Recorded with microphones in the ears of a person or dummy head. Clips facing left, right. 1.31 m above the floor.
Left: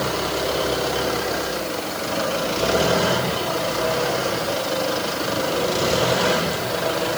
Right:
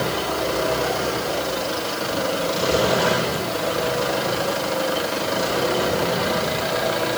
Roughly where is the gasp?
I don't hear a gasp.